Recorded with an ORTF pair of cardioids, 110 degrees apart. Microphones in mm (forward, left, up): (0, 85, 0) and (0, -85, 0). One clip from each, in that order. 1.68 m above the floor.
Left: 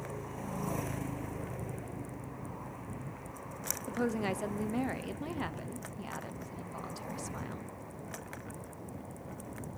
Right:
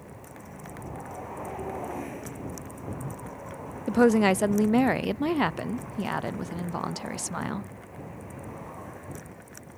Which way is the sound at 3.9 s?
60° right.